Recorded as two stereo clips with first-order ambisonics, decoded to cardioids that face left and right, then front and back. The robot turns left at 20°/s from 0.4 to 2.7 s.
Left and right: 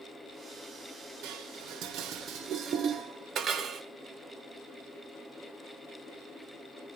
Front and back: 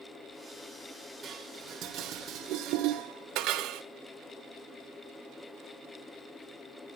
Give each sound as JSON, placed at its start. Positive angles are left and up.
{"t": 1.2, "sound": "dishes clattering", "azimuth_deg": -115, "distance_m": 1.0}